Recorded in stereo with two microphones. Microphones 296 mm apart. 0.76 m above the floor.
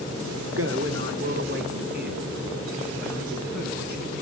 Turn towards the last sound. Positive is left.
turn(degrees=-30)  # may be behind; listen again after turning